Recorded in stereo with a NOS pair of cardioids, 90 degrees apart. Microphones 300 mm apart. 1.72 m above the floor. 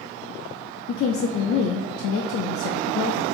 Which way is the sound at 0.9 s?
50° left.